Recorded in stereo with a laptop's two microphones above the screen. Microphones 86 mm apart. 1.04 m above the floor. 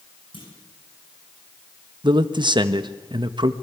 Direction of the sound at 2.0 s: 60° right (ahead or behind).